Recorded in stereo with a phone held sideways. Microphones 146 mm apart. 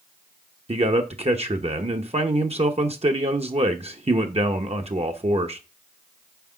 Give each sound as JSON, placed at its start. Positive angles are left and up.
{"t": 0.7, "sound": "a man speaking", "side_deg": -45, "distance_m": 0.8}